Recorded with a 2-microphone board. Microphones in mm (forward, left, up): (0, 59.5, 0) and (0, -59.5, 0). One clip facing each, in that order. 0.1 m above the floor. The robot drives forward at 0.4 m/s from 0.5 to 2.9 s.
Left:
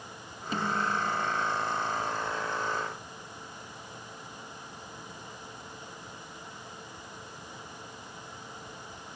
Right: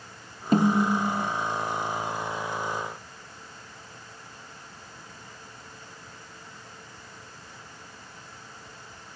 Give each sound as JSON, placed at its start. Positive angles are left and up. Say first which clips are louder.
{"t": 0.5, "sound": "a snare drum", "louder": "right 9 dB", "side_deg": -45}